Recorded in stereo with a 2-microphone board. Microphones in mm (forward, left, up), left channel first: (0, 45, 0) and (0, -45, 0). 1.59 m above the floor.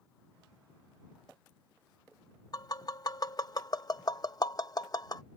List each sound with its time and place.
2.5 s tapping: 45° left (ahead or behind)